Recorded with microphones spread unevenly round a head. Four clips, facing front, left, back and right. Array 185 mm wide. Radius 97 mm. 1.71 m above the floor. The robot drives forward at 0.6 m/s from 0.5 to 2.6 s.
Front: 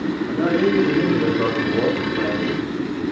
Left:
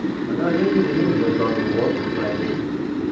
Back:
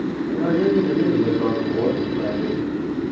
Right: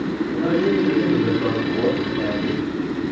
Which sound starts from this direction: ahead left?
A man speaking, at 0.3 s.